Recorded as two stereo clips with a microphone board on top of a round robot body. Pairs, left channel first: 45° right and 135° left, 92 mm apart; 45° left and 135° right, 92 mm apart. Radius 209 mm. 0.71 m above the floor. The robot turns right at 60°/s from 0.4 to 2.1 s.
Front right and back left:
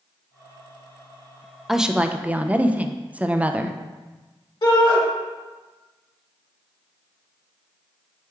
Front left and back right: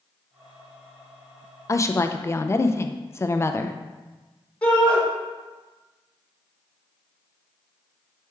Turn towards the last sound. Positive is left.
turn(degrees=-30)